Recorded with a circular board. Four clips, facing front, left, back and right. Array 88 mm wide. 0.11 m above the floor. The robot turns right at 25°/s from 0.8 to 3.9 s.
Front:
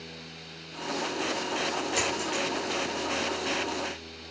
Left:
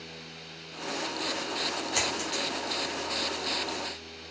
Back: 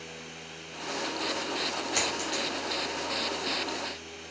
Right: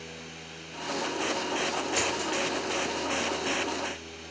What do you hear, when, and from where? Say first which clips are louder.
1.9 s a dropped coin: right 3 dB, front 2 dB; 135° left, 1.2 m; by 2.4 s 145° left, 1.2 m